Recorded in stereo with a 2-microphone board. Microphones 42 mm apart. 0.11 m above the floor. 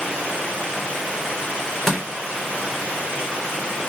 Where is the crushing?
5° left (ahead or behind), 1.2 m.